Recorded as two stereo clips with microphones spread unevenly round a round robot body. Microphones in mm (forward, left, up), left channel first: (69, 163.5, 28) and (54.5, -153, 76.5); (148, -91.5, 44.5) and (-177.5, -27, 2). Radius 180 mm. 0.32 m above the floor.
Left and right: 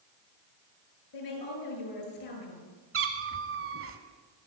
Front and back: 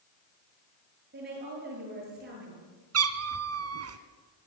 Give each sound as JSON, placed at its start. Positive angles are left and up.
{"t": 1.1, "sound": "a woman speaking", "azimuth_deg": 105, "distance_m": 7.5}
{"t": 2.9, "sound": "a cat meowing", "azimuth_deg": -150, "distance_m": 1.6}